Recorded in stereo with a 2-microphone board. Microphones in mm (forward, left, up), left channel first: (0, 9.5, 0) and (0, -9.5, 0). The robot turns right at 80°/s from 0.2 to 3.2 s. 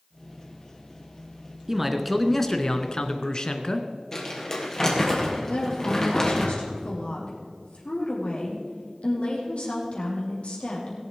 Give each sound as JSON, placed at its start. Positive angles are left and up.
{"t": 1.7, "sound": "a man speaking", "azimuth_deg": -30, "distance_m": 1.4}
{"t": 4.1, "sound": "crumpling", "side_deg": 25, "distance_m": 3.5}
{"t": 5.5, "sound": "a woman speaking", "side_deg": 65, "distance_m": 5.5}